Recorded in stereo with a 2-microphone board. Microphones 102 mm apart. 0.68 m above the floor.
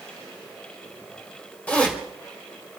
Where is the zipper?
15° left (ahead or behind), 3.5 m.